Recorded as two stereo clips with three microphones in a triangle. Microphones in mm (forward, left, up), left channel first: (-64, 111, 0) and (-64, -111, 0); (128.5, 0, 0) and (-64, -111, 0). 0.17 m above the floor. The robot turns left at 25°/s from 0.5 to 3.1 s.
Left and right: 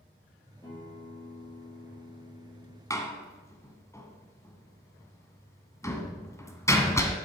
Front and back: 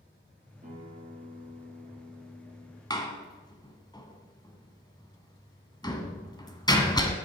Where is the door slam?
50° left, 1.2 m; by 7.2 s 45° left, 1.2 m.